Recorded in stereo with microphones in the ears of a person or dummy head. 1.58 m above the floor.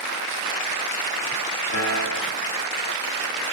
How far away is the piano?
About 0.7 m.